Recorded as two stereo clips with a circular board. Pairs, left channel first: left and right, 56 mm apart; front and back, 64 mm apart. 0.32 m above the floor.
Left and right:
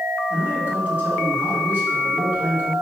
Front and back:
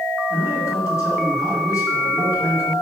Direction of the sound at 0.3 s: 35° right.